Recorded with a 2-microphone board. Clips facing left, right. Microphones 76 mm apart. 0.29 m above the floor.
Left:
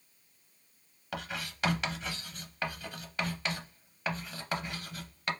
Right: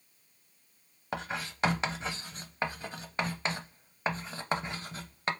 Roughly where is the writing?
Right.